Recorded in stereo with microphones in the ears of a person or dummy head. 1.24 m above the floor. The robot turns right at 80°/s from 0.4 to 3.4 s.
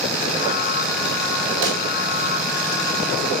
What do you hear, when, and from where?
1.6 s a pop: 75° right (ahead or behind), 3 m; by 1.9 s 55° right (ahead or behind), 3 m